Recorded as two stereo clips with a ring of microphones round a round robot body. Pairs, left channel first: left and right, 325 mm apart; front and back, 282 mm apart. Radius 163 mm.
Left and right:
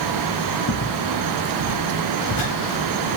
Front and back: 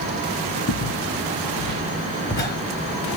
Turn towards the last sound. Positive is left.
turn(degrees=60)